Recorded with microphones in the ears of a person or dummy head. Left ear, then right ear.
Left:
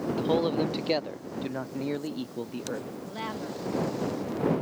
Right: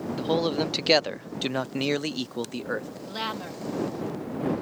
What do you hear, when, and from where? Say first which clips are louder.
0.1 s a man speaking: right 1 dB; 10° right (ahead or behind); by 2.9 s 55° right (ahead or behind)
3.0 s a woman speaking: right 4 dB; 80° right